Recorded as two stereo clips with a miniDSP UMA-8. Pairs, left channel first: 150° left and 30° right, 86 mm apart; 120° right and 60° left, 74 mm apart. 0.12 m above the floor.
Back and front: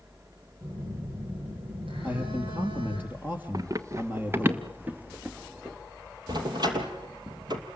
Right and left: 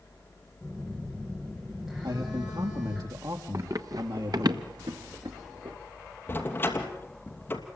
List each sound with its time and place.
0.6 s a phone buzzing: 25° right, 9 m
2.0 s a man speaking: 35° left, 4.5 m
3.5 s running footsteps: 15° left, 1.3 m; by 5.8 s 50° left, 2.5 m
6.3 s a door slam: 60° right, 2.5 m